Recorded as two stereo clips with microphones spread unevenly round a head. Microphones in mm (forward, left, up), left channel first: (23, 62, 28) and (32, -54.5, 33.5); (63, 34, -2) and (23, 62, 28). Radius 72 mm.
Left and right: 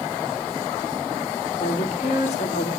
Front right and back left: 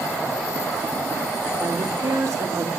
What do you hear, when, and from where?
1.6 s a woman speaking: 130° left, 3.5 m